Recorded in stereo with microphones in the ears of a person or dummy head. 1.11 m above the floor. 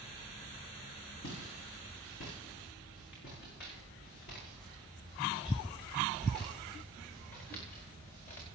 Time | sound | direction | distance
1.2 | footsteps | 70° left (ahead or behind) | 7.5 m